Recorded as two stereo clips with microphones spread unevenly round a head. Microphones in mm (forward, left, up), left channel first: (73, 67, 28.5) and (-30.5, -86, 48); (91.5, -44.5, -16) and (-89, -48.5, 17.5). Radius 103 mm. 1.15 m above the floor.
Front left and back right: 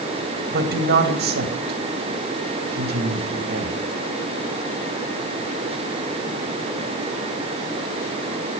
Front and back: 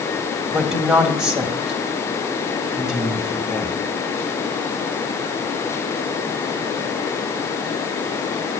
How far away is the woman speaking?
About 2 m.